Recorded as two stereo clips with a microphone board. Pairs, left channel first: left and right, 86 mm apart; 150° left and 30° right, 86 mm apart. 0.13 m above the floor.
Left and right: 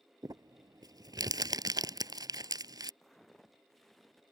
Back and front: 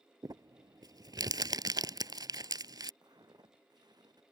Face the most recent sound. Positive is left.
turn(degrees=5)